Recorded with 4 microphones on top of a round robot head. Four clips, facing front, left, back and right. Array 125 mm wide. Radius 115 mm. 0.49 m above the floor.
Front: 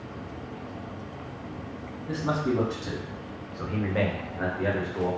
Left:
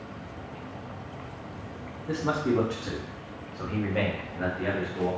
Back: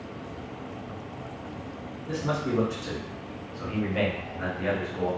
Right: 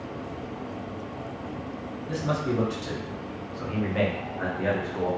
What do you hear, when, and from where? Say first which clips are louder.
2.1 s a man speaking: left 2 dB, front 1 dB; 80° left, 1.4 m; by 5.1 s 50° right, 1.3 m